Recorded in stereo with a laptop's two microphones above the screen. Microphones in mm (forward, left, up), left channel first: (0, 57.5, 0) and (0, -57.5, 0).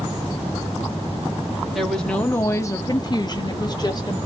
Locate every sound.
1.7 s a woman speaking: centre (ahead or behind), 0.7 m; by 4.2 s 35° left (ahead or behind), 1.0 m